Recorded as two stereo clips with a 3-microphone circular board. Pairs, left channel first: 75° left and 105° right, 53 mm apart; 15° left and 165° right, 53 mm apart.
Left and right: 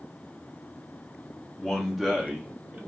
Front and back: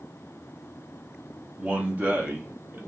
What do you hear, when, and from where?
1.6 s a man speaking: 145° left, 0.9 m; by 2.8 s 155° right, 1.1 m